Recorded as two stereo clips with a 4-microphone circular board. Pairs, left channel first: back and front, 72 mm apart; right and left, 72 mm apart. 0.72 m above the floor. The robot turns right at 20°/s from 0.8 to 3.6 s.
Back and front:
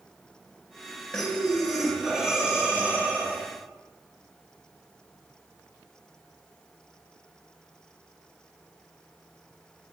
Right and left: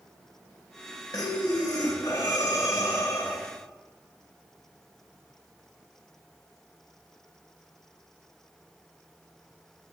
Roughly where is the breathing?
Right.